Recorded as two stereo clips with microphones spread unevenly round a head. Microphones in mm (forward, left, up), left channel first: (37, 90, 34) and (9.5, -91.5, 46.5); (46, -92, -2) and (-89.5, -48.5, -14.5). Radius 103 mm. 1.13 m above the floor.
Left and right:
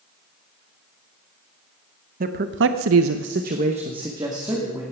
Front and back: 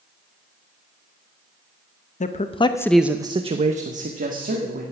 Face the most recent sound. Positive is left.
turn(degrees=-175)